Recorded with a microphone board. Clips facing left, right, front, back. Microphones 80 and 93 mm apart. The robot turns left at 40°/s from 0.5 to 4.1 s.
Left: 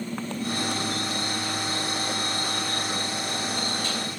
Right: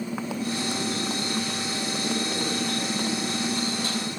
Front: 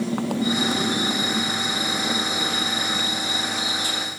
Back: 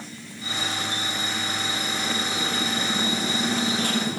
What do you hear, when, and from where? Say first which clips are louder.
0.0 s a motorcycle: right 1 dB, front 16 dB; 10° right; by 4.2 s 155° right